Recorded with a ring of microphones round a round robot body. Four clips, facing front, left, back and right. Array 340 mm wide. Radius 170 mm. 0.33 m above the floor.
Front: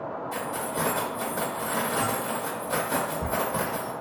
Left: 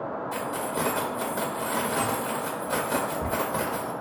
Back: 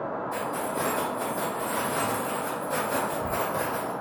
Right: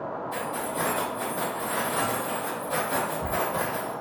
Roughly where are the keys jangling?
Ahead left.